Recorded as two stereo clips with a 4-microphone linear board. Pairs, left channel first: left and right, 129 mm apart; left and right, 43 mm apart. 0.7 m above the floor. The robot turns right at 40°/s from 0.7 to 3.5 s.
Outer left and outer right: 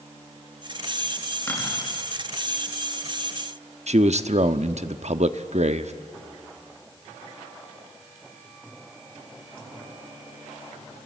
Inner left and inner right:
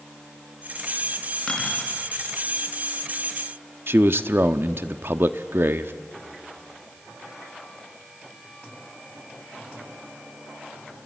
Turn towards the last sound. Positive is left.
turn(degrees=-60)  # may be behind; listen again after turning